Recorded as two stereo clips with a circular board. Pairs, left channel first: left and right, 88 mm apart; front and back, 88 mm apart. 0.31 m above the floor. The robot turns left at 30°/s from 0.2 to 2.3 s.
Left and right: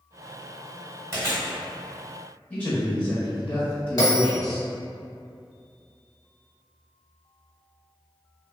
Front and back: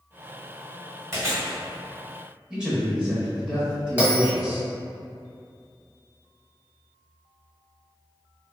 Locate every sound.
1.1 s chewing: 135° right, 1.4 m; by 1.6 s 150° right, 1.4 m
2.5 s a man speaking: 120° left, 0.9 m
4.0 s a bell: 120° left, 1.4 m